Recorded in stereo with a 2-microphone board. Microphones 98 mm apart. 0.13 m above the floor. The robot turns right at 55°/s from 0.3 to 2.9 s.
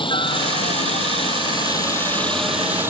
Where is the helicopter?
55° left (ahead or behind); by 2.9 s 25° right (ahead or behind).